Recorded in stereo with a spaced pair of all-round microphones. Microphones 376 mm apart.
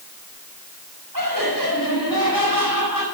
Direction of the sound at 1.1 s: 55° right (ahead or behind).